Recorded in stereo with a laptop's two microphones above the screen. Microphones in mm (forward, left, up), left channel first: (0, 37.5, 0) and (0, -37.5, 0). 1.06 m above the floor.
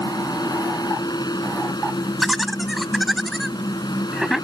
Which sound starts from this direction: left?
A fan, at 0.0 s.